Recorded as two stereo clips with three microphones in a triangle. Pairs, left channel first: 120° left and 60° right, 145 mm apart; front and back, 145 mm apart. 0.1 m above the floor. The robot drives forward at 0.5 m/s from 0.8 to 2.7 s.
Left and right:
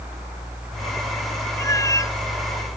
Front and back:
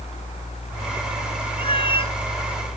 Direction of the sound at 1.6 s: 50° left.